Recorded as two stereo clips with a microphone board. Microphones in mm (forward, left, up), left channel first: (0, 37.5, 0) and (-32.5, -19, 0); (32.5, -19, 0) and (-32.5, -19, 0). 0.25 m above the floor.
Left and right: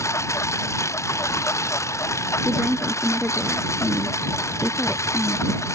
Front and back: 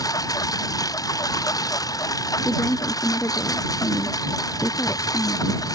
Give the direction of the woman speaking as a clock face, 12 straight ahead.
1 o'clock.